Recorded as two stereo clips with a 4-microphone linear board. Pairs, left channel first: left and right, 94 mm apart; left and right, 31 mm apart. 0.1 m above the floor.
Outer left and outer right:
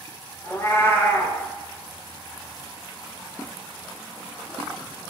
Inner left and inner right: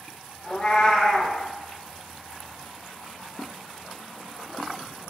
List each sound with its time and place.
0.4 s a cat meowing: 25° left (ahead or behind), 0.6 m